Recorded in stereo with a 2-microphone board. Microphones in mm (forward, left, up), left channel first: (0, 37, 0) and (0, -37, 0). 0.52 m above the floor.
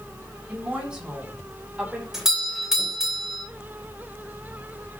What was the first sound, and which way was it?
A woman speaking, 15° right (ahead or behind).